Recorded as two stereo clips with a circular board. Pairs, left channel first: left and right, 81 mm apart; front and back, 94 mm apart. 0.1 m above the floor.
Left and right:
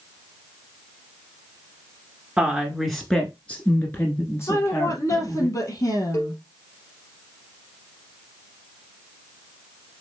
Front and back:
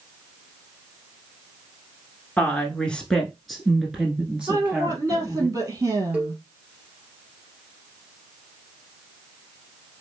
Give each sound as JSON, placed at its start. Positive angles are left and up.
{"t": 2.4, "sound": "a woman speaking", "azimuth_deg": -35, "distance_m": 1.1}
{"t": 4.5, "sound": "a woman speaking", "azimuth_deg": 130, "distance_m": 3.0}
{"t": 6.1, "sound": "a cowbell", "azimuth_deg": 115, "distance_m": 2.5}